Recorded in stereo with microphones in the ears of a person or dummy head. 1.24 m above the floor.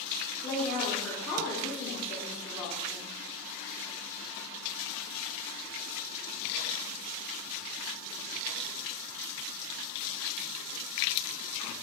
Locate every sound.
0.4 s a woman speaking: 10° left (ahead or behind), 1.3 m